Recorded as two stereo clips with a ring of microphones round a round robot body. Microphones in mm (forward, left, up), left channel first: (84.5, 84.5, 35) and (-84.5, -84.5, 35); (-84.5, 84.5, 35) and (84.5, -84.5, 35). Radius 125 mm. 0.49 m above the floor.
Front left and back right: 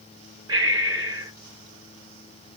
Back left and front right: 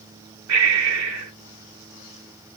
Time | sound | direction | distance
0.5 | breathing | 60° right | 1.3 m